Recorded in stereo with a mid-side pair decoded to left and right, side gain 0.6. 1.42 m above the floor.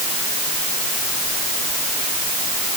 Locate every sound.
Only background noise.